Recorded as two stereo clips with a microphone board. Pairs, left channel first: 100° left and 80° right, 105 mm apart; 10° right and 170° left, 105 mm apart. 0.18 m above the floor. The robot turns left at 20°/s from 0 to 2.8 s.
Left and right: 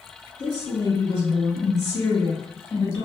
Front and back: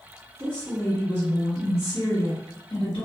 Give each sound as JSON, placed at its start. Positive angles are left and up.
{"t": 0.4, "sound": "a woman speaking", "azimuth_deg": 70, "distance_m": 1.9}